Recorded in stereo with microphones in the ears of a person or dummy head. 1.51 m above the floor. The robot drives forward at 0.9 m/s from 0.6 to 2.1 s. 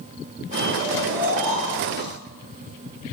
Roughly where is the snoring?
Centre.